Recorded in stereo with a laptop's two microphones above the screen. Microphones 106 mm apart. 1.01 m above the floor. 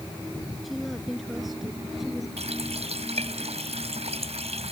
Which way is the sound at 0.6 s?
Centre (ahead or behind).